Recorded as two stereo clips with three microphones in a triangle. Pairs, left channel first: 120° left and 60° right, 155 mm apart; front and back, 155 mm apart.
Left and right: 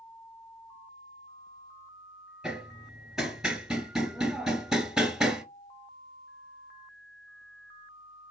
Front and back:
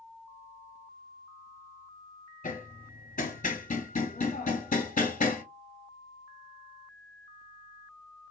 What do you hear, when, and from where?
2.4 s hammering: 25° left, 0.6 m